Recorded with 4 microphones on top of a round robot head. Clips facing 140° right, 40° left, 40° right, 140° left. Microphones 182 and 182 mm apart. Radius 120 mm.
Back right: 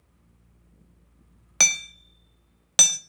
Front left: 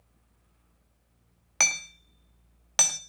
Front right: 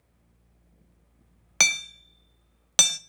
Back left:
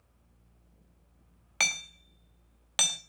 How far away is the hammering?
About 1.1 m.